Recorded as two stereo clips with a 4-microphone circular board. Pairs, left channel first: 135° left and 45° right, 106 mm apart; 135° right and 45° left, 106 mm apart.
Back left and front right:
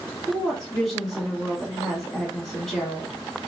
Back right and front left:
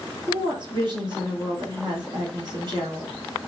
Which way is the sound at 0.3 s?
50° left.